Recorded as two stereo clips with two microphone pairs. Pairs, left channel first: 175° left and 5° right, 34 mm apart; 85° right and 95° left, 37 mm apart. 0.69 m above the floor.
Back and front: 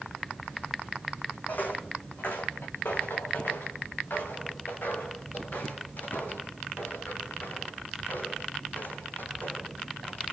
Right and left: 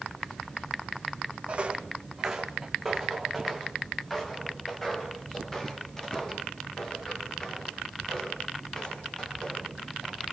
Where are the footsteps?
145° left, 2.5 m; by 10.2 s 155° right, 13.5 m.